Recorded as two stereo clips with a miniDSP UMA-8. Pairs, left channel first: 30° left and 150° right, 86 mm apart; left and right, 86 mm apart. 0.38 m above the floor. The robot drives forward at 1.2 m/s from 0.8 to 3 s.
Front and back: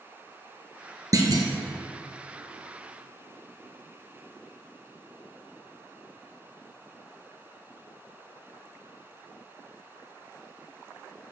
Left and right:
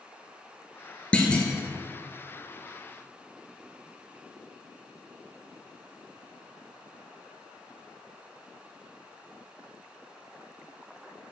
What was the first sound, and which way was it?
A clunk, 165° left.